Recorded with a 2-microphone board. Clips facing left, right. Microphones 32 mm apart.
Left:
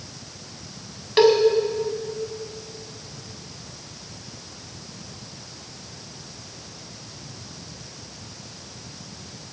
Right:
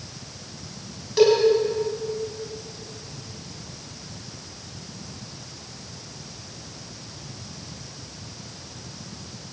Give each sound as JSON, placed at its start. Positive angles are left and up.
{"t": 1.2, "sound": "a cowbell", "side_deg": 45, "distance_m": 4.0}